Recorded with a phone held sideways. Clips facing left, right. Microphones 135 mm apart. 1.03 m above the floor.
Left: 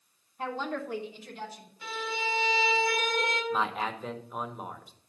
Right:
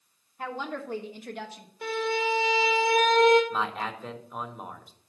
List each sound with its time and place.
0.4 s a woman speaking: 5° left (ahead or behind), 1.3 m; by 1.7 s 75° right (ahead or behind), 1.5 m
1.8 s a violin: 55° right (ahead or behind), 2.5 m
3.5 s a man speaking: centre (ahead or behind), 1.1 m